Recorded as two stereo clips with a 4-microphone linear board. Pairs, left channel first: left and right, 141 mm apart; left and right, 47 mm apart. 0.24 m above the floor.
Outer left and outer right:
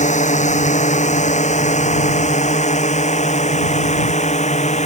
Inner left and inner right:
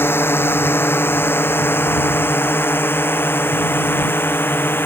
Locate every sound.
0.0 s a drone: 55° left (ahead or behind)